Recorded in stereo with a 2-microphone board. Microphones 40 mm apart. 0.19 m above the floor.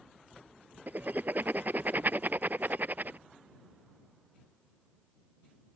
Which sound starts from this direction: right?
Writing, at 0.9 s.